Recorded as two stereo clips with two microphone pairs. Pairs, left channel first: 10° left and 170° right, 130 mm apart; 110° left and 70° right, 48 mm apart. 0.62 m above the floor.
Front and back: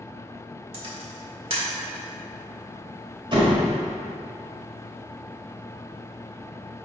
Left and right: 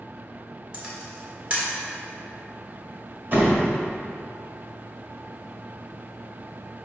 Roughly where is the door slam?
Behind right.